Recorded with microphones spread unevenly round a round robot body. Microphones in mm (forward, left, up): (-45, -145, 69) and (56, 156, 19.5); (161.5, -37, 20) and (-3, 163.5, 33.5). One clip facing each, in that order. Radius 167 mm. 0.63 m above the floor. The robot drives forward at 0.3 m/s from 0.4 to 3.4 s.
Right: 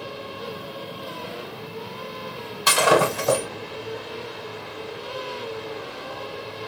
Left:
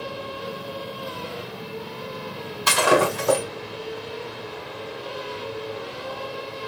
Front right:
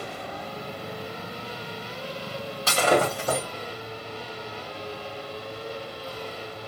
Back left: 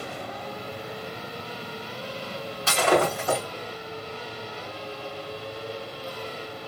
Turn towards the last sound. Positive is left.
turn(degrees=-115)